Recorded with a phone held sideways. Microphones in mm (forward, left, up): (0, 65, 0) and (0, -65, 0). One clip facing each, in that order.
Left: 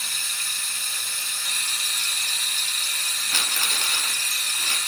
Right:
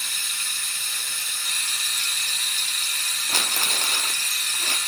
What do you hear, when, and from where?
0.0 s running water: 35° left (ahead or behind), 1.3 m
3.3 s crumpling: 45° right (ahead or behind), 0.5 m